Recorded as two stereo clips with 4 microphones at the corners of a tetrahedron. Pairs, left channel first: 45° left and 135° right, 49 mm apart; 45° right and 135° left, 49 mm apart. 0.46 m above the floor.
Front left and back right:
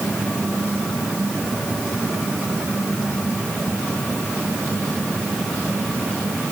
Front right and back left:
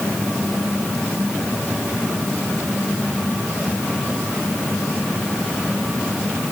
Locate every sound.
Only background noise.